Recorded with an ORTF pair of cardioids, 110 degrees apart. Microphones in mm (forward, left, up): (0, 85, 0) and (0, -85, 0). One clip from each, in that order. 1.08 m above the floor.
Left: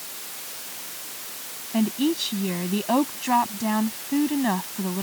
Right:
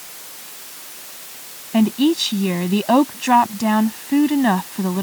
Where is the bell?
No bell in this recording.